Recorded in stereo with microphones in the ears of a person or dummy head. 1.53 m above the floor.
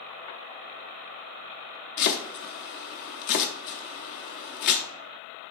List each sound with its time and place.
2.0 s chopping: 70° left (ahead or behind), 0.7 m